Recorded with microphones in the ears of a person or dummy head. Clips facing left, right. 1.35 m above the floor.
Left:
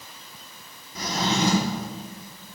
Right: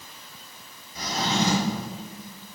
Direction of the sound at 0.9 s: 60° left (ahead or behind).